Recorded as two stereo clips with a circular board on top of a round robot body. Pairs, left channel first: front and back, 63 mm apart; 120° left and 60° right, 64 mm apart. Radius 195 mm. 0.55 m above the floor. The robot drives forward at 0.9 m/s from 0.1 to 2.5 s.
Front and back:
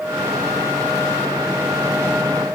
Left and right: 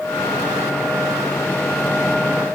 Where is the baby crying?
I don't hear a baby crying.